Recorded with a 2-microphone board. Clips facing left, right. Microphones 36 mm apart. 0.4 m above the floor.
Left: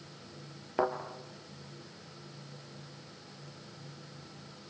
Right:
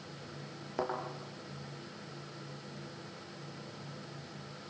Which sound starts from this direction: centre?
A thud, at 0.8 s.